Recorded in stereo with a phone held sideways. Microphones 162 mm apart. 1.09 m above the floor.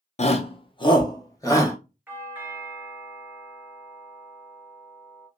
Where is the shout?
45° left (ahead or behind), 0.5 m; by 1.8 s 20° left (ahead or behind), 1.1 m.